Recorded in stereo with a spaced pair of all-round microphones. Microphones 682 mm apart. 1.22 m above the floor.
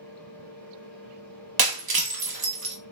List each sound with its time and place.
0.0 s a fan: 60° left (ahead or behind), 2 m
1.6 s breaking glass: 35° right (ahead or behind), 0.7 m